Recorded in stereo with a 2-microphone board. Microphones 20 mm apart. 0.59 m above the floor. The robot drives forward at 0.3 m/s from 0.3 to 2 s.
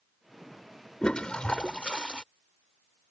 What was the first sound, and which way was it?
A toilet flushing, 65° left (ahead or behind).